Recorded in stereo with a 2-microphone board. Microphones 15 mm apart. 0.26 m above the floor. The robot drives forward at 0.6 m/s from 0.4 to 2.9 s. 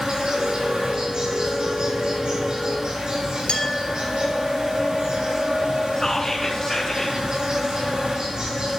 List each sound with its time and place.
0.0 s an insect: 70° right (ahead or behind), 5 m; by 8.8 s 65° right (ahead or behind), 5 m
3.5 s a clink: 60° left (ahead or behind), 3 m
6.0 s whispering: 35° left (ahead or behind), 2 m